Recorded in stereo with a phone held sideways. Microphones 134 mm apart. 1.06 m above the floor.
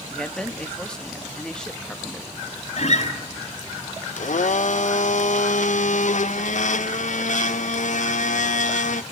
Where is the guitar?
55° left (ahead or behind), 4.5 m.